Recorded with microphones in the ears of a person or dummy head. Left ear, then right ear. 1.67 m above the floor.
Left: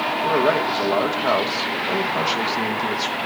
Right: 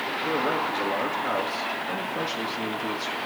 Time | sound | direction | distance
0.2 | a man speaking | 45° left (ahead or behind) | 2.0 m